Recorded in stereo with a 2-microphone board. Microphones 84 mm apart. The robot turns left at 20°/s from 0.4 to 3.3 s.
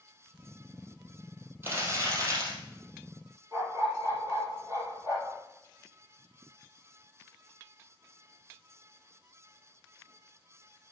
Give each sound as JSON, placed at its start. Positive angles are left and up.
{"t": 1.6, "sound": "crumpling", "side_deg": -25, "distance_m": 3.5}
{"t": 3.5, "sound": "a dog barking", "side_deg": -45, "distance_m": 5.5}